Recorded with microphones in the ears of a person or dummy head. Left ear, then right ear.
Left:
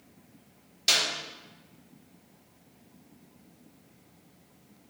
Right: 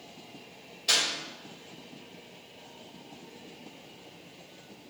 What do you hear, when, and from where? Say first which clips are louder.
0.9 s a clap: left 1 dB; 70° left (ahead or behind), 3 m